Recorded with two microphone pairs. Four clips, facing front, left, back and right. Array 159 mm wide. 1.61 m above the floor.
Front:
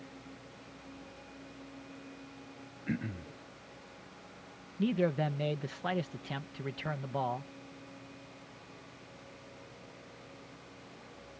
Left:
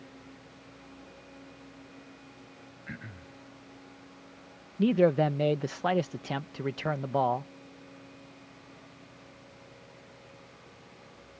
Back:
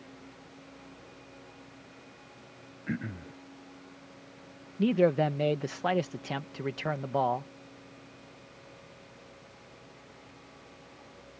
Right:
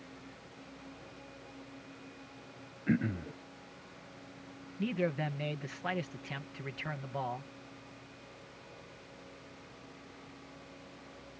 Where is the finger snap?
I don't hear a finger snap.